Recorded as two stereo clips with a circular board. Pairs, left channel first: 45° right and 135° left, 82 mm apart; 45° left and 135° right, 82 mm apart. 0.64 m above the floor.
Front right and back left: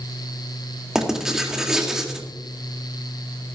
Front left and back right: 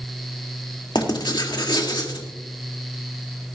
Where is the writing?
50° left, 2 m.